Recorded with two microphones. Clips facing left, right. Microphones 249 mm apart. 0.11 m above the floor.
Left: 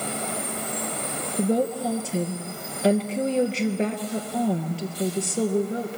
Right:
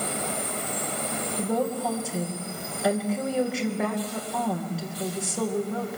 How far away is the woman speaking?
About 2.5 m.